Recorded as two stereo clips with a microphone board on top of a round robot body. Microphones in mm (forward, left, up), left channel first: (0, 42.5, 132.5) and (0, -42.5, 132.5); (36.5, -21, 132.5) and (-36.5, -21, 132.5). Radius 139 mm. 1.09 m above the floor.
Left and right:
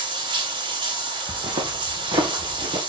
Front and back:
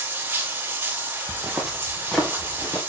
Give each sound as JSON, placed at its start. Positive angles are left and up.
{"t": 0.0, "sound": "running water", "azimuth_deg": -115, "distance_m": 3.0}
{"t": 1.3, "sound": "footsteps", "azimuth_deg": -100, "distance_m": 2.5}